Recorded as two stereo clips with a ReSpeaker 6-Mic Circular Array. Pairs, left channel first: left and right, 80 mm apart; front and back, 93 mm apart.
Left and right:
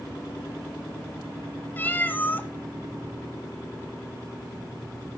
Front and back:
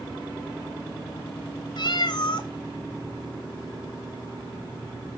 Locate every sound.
1.8 s a cat meowing: 25° left, 0.9 m